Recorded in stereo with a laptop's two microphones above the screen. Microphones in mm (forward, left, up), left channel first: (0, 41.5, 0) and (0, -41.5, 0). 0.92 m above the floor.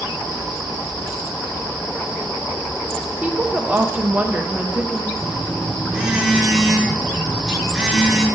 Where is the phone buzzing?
10° right (ahead or behind), 1.2 m.